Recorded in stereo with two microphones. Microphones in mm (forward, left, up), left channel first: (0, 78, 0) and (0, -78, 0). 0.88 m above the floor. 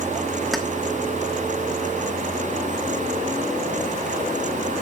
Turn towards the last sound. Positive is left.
turn(degrees=0)  # may be behind; listen again after turning